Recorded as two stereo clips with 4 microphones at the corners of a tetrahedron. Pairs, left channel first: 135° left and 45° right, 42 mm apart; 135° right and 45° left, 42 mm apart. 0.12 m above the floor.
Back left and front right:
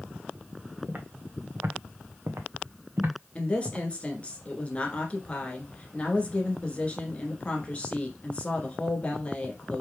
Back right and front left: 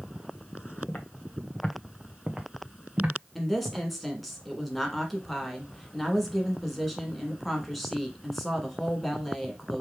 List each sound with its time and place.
0.9 s footsteps: 90° right, 1.1 m; by 3.9 s straight ahead, 1.5 m
3.4 s a woman speaking: 140° left, 1.3 m